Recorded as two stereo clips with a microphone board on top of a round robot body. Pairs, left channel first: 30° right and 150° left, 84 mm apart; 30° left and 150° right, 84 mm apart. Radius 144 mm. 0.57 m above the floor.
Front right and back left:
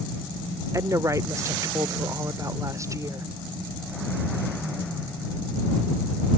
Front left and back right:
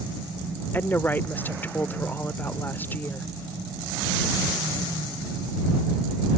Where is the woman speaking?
100° left.